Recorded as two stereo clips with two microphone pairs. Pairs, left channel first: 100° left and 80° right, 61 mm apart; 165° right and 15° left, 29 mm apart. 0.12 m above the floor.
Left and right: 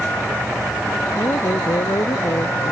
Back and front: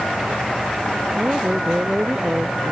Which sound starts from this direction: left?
A woman speaking, at 1.2 s.